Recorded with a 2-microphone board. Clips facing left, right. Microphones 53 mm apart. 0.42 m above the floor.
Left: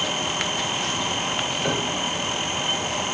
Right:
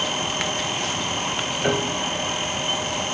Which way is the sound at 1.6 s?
20° right (ahead or behind).